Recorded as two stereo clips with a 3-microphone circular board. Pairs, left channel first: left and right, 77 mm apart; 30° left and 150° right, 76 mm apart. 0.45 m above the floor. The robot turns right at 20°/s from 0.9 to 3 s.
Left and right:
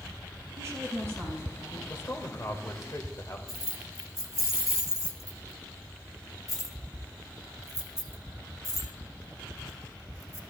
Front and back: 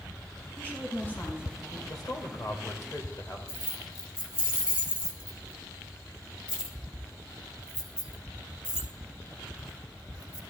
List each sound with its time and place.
0.6 s a woman speaking: 40° right, 5 m; by 1.8 s 20° right, 5 m
1.9 s a man speaking: 45° left, 1.6 m; by 3.4 s 65° left, 1.6 m
3.5 s keys jangling: 135° left, 1.4 m